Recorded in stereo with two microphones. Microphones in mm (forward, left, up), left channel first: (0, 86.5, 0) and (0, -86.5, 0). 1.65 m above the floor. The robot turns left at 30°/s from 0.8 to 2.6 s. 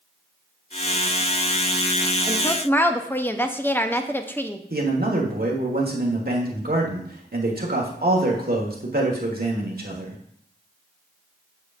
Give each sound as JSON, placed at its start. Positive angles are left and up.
{"t": 2.3, "sound": "a woman speaking", "side_deg": 20, "distance_m": 0.6}
{"t": 4.7, "sound": "a man speaking", "side_deg": -55, "distance_m": 1.5}